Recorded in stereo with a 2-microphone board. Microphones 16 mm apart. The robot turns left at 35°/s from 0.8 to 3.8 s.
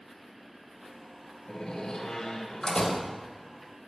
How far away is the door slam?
About 4.5 m.